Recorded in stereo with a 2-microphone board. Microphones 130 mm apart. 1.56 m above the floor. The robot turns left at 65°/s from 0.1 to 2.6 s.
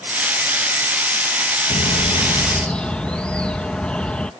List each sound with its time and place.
1.7 s a bird: 65° left; by 4.3 s 10° left